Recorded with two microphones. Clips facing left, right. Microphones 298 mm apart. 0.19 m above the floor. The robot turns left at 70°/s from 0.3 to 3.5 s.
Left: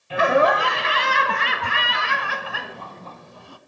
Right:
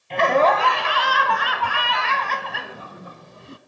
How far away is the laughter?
About 1.0 m.